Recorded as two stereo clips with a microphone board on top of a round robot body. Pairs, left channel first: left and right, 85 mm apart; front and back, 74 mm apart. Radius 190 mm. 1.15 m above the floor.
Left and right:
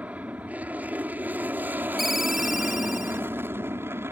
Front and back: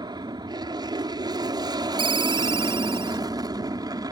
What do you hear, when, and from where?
0.0 s an aircraft: 165° right; by 4.1 s 150° right
2.0 s a ringtone: straight behind